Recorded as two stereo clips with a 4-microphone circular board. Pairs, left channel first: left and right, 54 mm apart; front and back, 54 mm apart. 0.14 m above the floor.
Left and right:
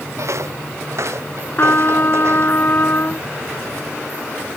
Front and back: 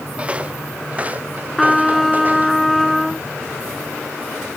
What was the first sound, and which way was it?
Footsteps, 115° right.